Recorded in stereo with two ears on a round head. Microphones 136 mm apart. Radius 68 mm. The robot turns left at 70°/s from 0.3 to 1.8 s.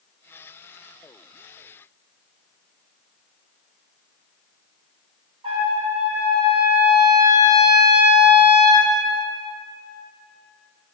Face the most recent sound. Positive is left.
turn(degrees=-35)  # may be behind; listen again after turning